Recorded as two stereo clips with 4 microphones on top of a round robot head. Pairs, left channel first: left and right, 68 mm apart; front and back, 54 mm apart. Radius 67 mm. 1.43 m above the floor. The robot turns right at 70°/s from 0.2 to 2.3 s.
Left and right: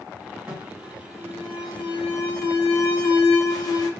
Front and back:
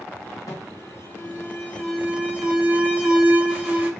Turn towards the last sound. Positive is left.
turn(degrees=110)